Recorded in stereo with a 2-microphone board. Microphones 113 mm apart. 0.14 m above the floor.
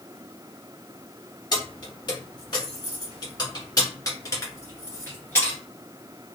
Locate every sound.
1.5 s keys jangling: 40° left (ahead or behind), 1.6 m; by 5.6 s 20° left (ahead or behind), 1.9 m